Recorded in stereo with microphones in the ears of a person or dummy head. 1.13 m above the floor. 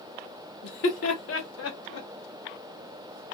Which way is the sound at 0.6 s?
65° left (ahead or behind).